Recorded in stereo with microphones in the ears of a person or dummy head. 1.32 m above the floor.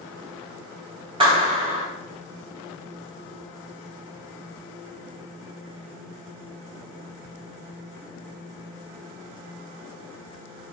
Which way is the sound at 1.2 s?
25° right (ahead or behind).